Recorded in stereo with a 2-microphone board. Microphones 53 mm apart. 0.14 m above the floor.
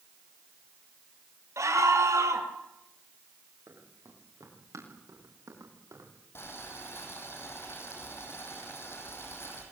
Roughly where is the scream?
Right.